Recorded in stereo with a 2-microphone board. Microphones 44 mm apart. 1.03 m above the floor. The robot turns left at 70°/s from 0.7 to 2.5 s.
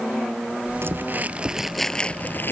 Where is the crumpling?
115° right; by 2.5 s 125° left.